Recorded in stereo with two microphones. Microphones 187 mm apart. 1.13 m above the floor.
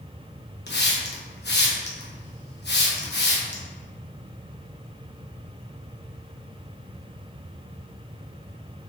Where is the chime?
No chime in this recording.